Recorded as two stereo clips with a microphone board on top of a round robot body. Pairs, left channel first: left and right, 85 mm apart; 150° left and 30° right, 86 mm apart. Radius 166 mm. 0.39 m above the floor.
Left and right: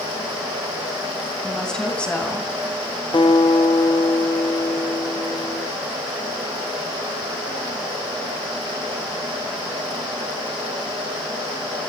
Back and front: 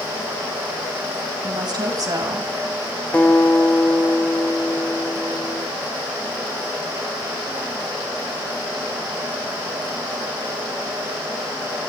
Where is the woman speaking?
5° left, 4.5 m; by 2.5 s 20° left, 4 m.